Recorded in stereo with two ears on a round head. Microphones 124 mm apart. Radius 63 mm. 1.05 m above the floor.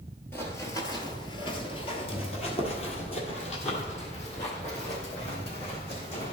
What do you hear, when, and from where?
0.3 s running footsteps: 15° left (ahead or behind), 1.2 m; by 6.3 s 50° left (ahead or behind), 3 m